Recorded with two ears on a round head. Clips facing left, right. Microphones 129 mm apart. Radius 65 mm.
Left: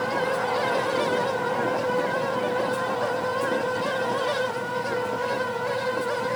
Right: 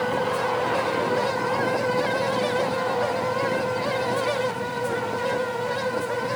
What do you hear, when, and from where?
Only background noise.